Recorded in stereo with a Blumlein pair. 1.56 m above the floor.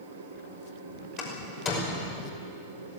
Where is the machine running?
65° right, 5.5 m.